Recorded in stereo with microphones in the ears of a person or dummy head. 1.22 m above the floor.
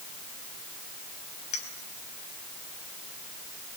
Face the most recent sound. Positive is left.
turn(degrees=35)  # may be behind; listen again after turning